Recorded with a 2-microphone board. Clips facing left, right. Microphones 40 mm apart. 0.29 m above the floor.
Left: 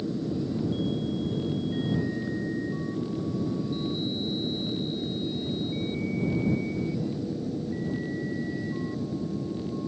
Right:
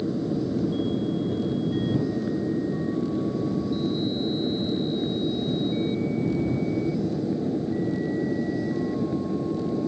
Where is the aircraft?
25° right (ahead or behind); by 9.9 s 35° right (ahead or behind).